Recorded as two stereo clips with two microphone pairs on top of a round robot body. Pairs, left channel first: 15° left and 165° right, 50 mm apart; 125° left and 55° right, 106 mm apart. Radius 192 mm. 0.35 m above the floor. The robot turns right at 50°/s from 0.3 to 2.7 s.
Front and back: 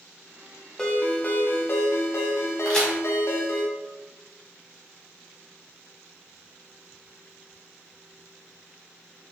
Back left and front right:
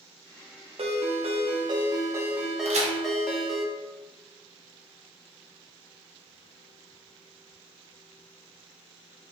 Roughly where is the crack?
Ahead right.